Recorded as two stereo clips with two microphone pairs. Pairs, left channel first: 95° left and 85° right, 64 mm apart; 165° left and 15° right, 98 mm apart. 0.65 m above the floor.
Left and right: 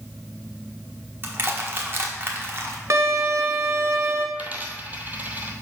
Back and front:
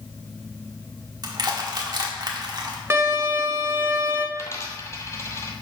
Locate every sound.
1.2 s crushing: 45° right, 1.2 m
2.9 s a violin: 70° right, 1.0 m
4.3 s a dropped coin: 140° right, 1.2 m